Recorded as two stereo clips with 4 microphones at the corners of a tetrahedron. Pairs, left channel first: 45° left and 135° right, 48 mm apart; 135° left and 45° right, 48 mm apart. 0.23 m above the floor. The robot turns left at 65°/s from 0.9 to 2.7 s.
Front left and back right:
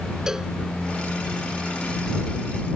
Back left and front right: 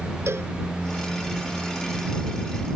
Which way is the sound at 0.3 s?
60° right.